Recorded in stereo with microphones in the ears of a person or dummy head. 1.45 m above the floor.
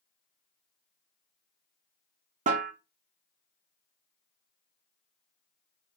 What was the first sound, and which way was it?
A snare drum, 35° right (ahead or behind).